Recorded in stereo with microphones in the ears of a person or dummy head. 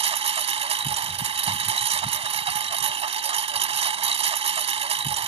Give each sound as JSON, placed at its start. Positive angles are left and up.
{"t": 0.0, "sound": "a lawn mower", "side_deg": -30}